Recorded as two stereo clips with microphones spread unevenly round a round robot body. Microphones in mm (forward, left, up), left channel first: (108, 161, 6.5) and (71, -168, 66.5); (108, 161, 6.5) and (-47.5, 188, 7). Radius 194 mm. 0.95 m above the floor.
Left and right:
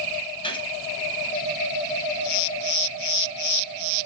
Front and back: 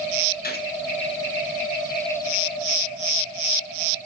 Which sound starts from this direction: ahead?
A gunshot, at 0.4 s.